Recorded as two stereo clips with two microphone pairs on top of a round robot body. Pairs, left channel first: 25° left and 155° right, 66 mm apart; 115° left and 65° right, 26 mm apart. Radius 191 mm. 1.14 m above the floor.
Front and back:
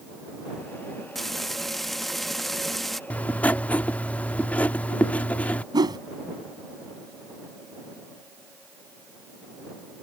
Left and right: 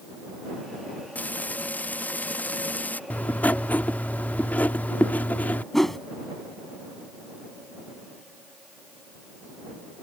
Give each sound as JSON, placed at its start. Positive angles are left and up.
{"t": 1.1, "sound": "frying", "azimuth_deg": 115}
{"t": 3.1, "sound": "writing", "azimuth_deg": 100}
{"t": 5.7, "sound": "a whoosh", "azimuth_deg": -170}